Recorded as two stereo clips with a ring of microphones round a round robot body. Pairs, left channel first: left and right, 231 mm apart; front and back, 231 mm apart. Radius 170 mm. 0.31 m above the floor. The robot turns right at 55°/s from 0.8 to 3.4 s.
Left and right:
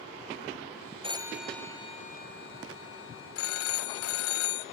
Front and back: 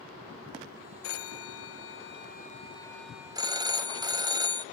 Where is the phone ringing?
25° right, 1.0 m; by 4.7 s 105° left, 1.0 m.